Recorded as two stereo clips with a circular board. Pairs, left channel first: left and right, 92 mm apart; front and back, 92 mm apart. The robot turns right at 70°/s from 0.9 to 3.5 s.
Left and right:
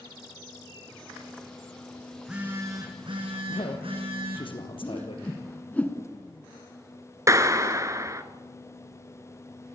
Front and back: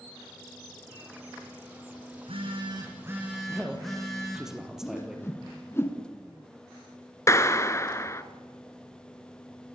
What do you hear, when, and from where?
2.1 s a phone buzzing: 175° left, 5 m; by 4.5 s 85° right, 5 m
3.5 s a man speaking: 95° left, 4.5 m
4.8 s a whoosh: 30° left, 1.9 m
7.3 s a clap: 45° right, 1.5 m